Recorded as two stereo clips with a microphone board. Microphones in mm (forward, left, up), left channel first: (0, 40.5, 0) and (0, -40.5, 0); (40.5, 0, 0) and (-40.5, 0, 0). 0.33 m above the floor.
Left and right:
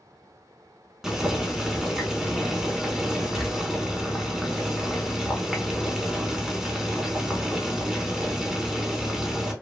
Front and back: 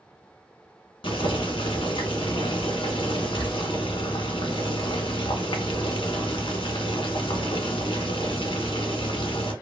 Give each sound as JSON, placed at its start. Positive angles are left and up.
{"t": 1.0, "sound": "boiling", "azimuth_deg": -5, "distance_m": 0.8}